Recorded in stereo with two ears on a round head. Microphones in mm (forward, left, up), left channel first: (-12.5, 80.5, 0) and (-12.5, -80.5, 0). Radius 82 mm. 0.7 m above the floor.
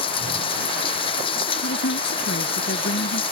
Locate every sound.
0.0 s running water: 30° left (ahead or behind)
1.6 s a woman speaking: 75° left (ahead or behind)